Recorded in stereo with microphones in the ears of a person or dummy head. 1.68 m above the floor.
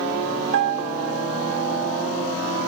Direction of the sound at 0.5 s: 65° right (ahead or behind).